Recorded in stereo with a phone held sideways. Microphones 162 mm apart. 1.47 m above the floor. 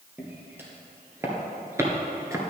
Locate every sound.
0.2 s footsteps: 15° right (ahead or behind), 2.5 m; by 2.5 s 20° right (ahead or behind), 1.4 m